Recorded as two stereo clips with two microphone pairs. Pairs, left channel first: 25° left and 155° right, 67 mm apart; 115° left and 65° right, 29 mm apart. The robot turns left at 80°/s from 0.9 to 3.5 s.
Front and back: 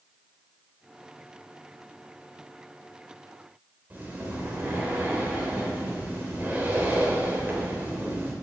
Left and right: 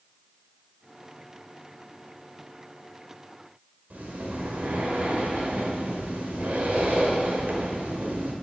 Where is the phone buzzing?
No phone buzzing in this recording.